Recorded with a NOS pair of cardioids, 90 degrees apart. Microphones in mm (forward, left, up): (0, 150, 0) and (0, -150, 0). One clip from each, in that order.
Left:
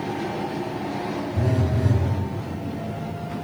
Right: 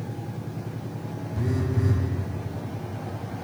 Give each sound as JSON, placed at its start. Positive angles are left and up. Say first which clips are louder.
{"t": 1.4, "sound": "a phone buzzing", "louder": "even", "azimuth_deg": 15, "distance_m": 2.0}